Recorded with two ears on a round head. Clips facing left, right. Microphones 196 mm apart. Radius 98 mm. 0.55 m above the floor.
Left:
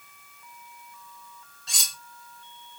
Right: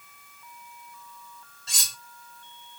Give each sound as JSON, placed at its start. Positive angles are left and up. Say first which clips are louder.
{"t": 1.7, "sound": "cutlery clinking", "louder": "left 1 dB", "side_deg": 0, "distance_m": 1.5}